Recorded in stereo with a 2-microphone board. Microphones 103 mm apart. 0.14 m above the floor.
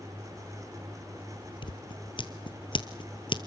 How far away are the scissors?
About 1.4 m.